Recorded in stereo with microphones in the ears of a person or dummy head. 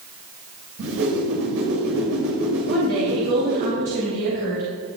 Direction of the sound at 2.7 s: 55° right (ahead or behind).